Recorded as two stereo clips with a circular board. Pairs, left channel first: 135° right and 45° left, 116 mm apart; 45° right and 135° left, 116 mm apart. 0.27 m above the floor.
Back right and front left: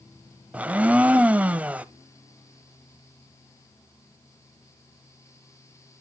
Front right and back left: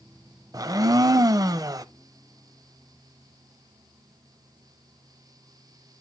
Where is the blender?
115° left, 0.5 m.